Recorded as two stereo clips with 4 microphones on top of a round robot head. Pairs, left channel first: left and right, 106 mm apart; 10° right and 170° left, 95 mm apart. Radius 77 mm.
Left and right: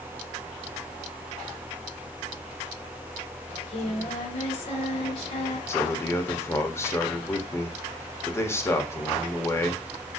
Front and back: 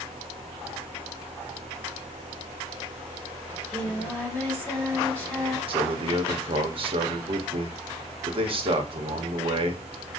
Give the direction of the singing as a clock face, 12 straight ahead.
10 o'clock.